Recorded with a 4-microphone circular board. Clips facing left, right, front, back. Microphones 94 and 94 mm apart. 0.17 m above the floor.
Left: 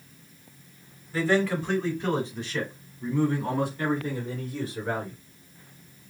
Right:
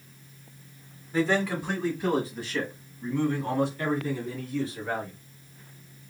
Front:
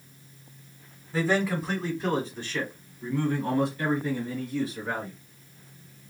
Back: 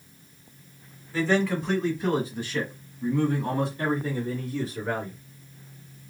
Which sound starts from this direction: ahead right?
A man speaking, at 1.1 s.